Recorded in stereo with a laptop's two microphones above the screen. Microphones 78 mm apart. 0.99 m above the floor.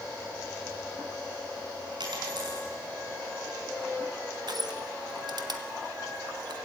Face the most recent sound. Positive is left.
turn(degrees=-60)  # may be behind; listen again after turning